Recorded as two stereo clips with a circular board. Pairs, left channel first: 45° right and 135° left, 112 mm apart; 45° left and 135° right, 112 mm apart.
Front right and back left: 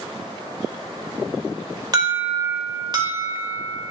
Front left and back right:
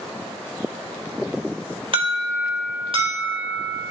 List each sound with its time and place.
1.9 s an alarm: 170° right, 1.7 m